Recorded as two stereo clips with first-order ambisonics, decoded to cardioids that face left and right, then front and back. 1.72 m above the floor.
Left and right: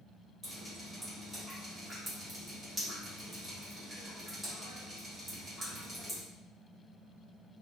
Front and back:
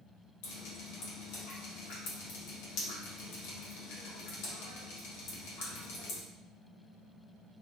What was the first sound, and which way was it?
Dripping, straight ahead.